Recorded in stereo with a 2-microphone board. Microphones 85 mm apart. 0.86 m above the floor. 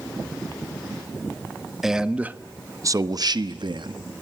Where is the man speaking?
5° right (ahead or behind), 0.9 m; by 4.0 s 70° right (ahead or behind), 1.2 m.